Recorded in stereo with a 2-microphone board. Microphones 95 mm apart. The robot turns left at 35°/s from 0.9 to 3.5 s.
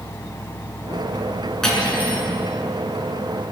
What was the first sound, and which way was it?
Cutlery clinking, 5° left (ahead or behind).